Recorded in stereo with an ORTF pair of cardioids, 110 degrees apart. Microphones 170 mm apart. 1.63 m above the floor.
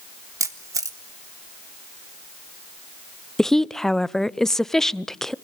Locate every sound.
0.4 s a camera shutter: 20° right, 1.8 m
3.4 s a woman speaking: 5° left, 0.5 m